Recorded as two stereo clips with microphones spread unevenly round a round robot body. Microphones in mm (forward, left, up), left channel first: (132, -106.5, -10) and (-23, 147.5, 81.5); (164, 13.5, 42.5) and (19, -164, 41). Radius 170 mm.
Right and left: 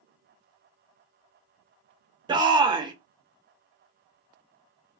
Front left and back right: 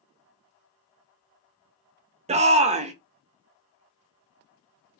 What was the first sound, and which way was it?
A shout, 145° right.